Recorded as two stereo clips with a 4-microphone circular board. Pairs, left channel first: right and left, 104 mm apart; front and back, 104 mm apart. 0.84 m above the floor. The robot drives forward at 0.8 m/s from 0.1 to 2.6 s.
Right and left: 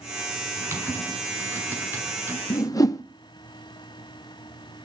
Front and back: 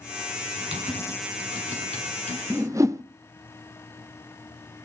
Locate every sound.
0.6 s typing on a keyboard: 155° left, 5 m; by 2.4 s 160° left, 6 m
2.5 s a whoosh: 120° right, 0.5 m; by 3.0 s 130° right, 0.6 m